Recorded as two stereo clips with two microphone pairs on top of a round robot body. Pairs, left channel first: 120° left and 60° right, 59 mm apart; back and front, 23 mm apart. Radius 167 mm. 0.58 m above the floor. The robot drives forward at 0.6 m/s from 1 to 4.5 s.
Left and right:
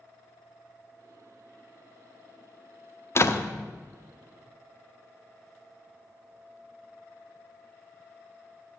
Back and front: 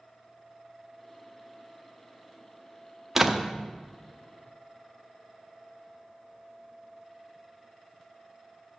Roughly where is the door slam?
Left.